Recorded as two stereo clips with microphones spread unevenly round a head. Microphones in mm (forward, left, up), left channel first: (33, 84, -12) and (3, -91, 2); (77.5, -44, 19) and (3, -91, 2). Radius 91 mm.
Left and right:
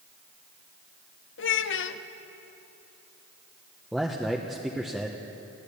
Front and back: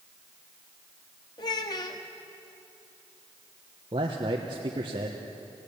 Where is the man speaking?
170° left, 1.2 m.